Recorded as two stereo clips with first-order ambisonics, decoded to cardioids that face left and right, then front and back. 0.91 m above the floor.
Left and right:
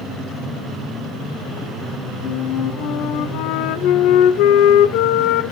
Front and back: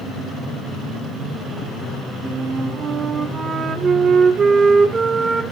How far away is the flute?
About 1.0 m.